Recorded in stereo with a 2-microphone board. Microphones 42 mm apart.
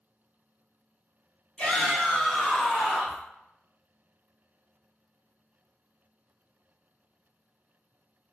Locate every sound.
1.6 s a shout: 35° left (ahead or behind), 1.5 m; by 3.2 s 15° right (ahead or behind), 1.3 m